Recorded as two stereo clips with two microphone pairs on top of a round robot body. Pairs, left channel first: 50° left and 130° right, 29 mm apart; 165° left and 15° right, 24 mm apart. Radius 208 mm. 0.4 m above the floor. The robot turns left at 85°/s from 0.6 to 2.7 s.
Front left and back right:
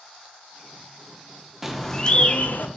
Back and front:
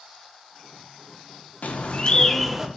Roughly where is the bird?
Behind left.